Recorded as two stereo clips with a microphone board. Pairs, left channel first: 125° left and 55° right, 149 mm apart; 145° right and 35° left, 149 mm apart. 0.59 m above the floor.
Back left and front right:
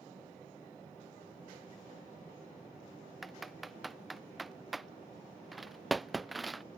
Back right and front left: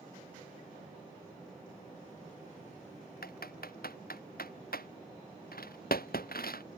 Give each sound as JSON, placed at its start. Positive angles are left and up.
{"t": 3.2, "sound": "typing on a keyboard", "azimuth_deg": -145}